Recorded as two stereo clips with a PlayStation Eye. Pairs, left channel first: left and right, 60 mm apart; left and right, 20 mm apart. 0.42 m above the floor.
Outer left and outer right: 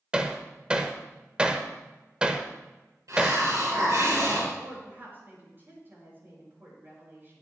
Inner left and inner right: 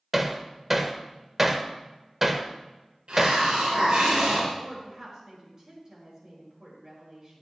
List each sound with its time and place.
0.1 s hammering: 15° right (ahead or behind), 1.0 m
3.1 s a hiss: 60° right (ahead or behind), 4.5 m
4.6 s a woman speaking: 35° right (ahead or behind), 6.5 m